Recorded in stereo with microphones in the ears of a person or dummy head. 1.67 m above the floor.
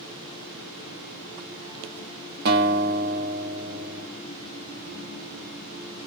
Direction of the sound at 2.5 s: 50° right (ahead or behind).